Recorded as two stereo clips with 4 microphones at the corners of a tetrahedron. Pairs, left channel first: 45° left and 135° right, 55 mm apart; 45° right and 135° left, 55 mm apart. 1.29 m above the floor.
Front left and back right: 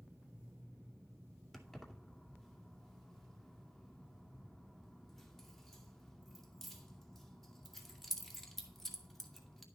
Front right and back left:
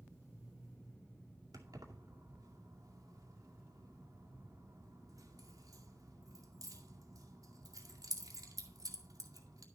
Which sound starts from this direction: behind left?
Keys jangling, at 1.5 s.